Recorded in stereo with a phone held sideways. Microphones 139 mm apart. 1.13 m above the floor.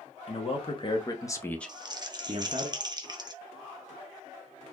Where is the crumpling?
30° right (ahead or behind), 0.6 m.